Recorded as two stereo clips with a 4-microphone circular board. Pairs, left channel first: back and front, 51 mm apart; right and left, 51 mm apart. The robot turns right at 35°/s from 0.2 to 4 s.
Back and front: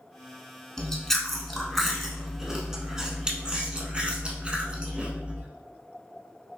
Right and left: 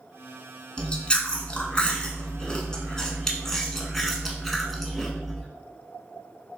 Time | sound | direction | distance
0.8 | chewing | 120° right | 0.8 m